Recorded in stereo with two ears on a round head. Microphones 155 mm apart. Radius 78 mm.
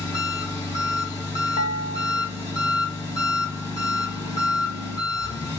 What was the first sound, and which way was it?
An engine running, 25° left (ahead or behind).